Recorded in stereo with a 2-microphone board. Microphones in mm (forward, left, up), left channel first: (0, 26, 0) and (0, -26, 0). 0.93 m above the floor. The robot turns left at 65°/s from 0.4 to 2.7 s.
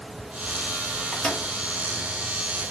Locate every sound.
1.1 s a microwave: centre (ahead or behind), 2.5 m; by 1.5 s 25° left (ahead or behind), 2.5 m